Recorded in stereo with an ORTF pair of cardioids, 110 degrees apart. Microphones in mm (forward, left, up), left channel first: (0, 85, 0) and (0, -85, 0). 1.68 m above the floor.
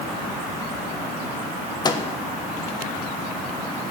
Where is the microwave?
25° left, 1.4 m.